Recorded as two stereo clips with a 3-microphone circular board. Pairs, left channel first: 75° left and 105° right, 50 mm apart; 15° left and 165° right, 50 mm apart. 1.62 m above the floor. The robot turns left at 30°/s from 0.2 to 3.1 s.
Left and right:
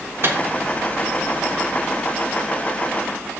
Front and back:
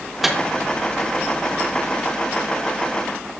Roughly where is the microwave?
Right.